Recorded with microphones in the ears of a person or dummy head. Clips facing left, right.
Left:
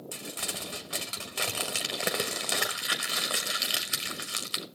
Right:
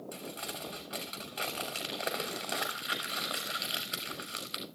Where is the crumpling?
35° left (ahead or behind), 1.0 m.